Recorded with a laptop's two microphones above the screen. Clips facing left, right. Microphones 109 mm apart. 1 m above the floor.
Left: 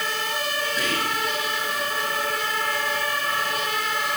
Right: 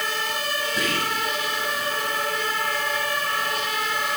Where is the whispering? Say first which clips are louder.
Right 1 dB; 40° right (ahead or behind), 4.5 m.